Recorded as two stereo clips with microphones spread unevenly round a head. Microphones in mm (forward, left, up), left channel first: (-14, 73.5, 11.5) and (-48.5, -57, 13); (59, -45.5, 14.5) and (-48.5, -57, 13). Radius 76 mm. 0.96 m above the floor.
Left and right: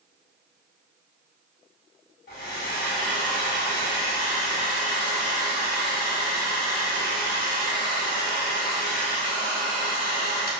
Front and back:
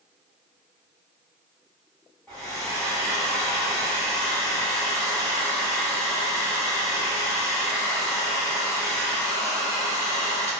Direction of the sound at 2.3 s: 85° left.